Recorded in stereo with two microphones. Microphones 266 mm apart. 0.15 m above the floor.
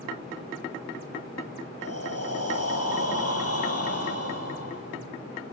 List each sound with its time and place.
1.8 s breathing: 65° left (ahead or behind), 3.5 m